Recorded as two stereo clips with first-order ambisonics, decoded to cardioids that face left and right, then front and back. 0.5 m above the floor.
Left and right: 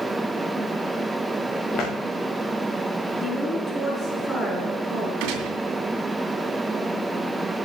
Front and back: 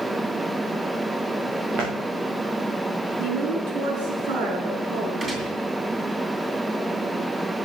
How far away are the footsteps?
About 3 m.